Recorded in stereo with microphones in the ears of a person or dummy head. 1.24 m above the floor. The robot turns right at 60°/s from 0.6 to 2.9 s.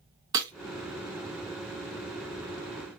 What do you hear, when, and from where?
0.3 s breaking glass: 15° right (ahead or behind), 0.6 m